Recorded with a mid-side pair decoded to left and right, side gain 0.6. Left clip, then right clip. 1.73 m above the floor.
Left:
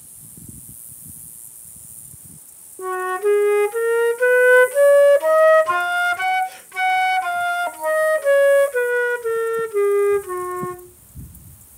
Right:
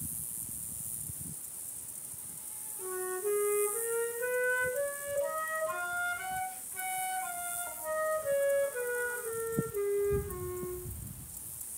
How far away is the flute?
About 1.0 m.